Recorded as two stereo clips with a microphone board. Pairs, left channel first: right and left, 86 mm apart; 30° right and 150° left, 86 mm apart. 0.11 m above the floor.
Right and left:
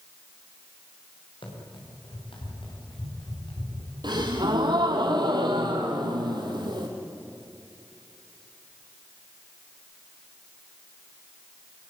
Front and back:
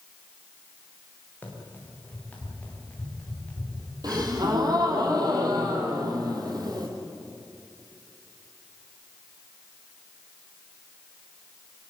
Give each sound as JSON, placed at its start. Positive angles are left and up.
{"t": 1.4, "sound": "running footsteps", "azimuth_deg": -95, "distance_m": 8.0}
{"t": 4.0, "sound": "a gasp", "azimuth_deg": 115, "distance_m": 4.0}